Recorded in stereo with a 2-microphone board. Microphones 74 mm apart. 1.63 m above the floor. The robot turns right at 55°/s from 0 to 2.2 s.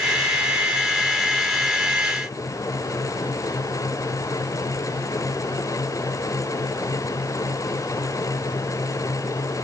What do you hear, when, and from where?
Only background noise.